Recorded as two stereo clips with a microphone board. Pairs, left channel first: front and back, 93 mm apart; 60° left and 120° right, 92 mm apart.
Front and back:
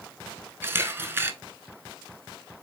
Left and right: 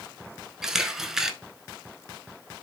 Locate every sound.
0.6 s a camera shutter: 165° left, 0.6 m